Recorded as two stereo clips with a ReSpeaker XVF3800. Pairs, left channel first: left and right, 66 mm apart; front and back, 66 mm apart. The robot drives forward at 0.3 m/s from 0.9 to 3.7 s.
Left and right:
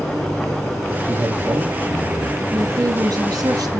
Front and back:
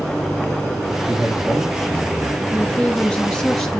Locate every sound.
1.1 s a man speaking: 110° right, 2 m; by 2.4 s 120° right, 2.5 m
2.5 s a woman speaking: 70° right, 1.8 m; by 3.8 s 85° right, 1.7 m